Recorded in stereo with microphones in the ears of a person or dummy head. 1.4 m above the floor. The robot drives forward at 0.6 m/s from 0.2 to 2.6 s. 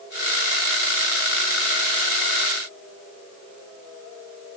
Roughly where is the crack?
I don't hear a crack.